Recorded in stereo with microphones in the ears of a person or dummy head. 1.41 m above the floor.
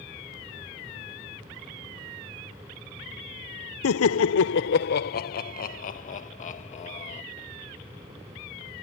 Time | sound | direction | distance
3.8 | laughter | 75° left (ahead or behind) | ?